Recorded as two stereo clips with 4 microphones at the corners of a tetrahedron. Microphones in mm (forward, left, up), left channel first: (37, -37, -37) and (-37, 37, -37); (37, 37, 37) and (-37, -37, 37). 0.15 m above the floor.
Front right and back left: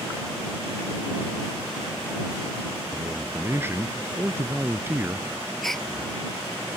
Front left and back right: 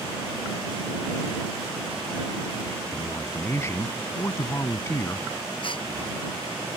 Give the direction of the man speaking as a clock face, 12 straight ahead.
9 o'clock.